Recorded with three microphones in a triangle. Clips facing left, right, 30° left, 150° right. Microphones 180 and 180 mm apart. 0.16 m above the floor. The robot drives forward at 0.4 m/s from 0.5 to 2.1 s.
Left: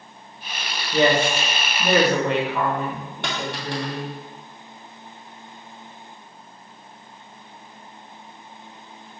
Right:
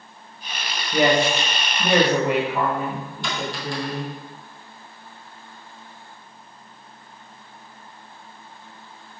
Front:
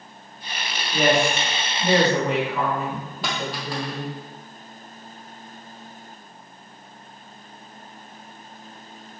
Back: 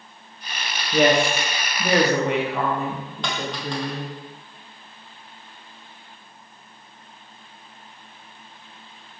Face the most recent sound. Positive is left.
turn(degrees=115)